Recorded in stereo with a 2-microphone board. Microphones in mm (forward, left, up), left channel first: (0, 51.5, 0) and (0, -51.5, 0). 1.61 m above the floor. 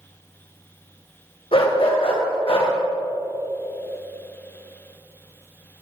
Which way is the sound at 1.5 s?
60° left (ahead or behind).